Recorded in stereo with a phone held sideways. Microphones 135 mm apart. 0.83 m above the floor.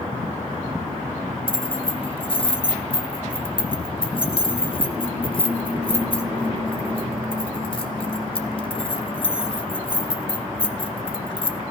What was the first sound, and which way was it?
Keys jangling, 40° left (ahead or behind).